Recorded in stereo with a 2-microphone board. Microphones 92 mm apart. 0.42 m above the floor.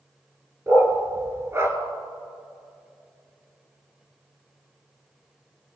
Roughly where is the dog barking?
Right.